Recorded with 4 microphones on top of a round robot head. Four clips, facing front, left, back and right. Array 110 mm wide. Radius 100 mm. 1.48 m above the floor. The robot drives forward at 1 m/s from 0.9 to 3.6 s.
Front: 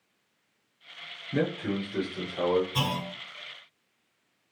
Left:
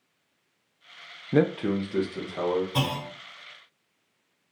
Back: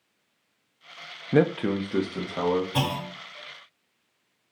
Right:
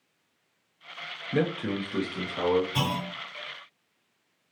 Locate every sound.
1.3 s a man speaking: 145° left, 0.5 m; by 2.6 s 170° left, 1.7 m
2.7 s a clunk: 150° left, 3 m; by 3.1 s 155° left, 3.5 m